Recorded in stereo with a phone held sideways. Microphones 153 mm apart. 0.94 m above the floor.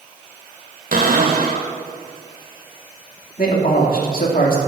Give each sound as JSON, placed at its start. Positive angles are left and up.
{"t": 0.9, "sound": "a cupboard door", "side_deg": -65, "distance_m": 1.7}
{"t": 3.4, "sound": "a man speaking", "side_deg": 70, "distance_m": 2.5}